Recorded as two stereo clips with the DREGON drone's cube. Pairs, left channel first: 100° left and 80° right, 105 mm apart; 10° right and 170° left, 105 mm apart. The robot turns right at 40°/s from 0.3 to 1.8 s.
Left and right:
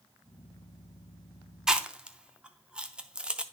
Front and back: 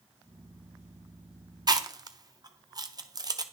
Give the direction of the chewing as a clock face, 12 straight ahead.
5 o'clock.